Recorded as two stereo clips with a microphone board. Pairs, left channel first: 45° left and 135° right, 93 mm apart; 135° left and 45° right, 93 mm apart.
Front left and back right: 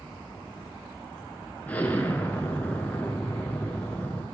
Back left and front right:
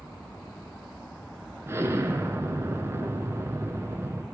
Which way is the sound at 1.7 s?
15° right.